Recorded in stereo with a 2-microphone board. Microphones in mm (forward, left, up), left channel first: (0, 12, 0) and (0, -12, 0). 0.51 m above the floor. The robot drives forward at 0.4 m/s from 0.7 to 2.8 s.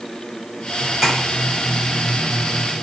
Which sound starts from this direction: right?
Tapping, at 1.0 s.